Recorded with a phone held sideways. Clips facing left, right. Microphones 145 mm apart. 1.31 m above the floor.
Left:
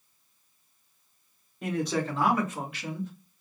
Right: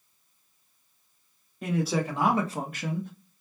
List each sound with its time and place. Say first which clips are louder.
1.6 s a man speaking: right 1 dB; centre (ahead or behind), 1.2 m; by 3.1 s 65° right (ahead or behind), 0.9 m